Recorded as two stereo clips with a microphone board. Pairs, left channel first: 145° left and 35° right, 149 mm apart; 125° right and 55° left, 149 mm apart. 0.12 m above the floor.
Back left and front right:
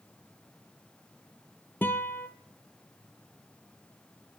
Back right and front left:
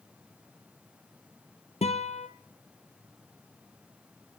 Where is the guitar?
140° right, 1.0 m.